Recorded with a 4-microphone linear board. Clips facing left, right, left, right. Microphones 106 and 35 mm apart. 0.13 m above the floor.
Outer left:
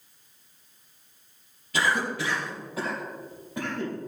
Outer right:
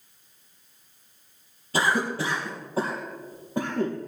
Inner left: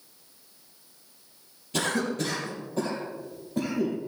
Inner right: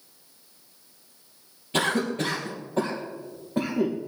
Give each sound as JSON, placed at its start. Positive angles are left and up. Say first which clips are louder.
{"t": 1.7, "sound": "a cough", "louder": "outer right 2 dB, inner right 3 dB", "side_deg": -35, "distance_m": 3.0}